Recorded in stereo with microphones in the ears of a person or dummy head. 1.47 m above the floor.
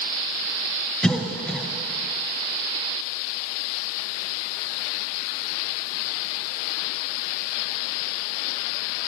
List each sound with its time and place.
1.0 s a cough: 5° left (ahead or behind), 1.0 m